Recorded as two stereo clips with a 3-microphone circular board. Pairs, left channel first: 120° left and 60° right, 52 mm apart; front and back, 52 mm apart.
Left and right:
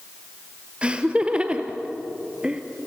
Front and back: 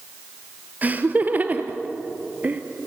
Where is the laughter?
125° right, 2 m.